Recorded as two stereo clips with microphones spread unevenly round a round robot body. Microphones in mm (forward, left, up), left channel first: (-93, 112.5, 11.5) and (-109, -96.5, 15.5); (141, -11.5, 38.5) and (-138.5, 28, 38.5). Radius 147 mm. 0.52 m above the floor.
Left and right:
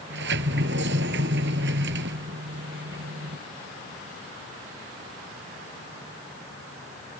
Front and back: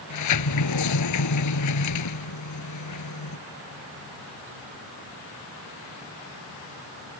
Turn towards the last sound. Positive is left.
turn(degrees=-40)